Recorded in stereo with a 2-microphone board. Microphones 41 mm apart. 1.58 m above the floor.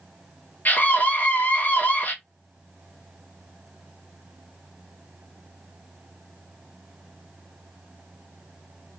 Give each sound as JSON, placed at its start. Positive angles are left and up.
{"t": 0.7, "sound": "a scream", "side_deg": 55, "distance_m": 1.8}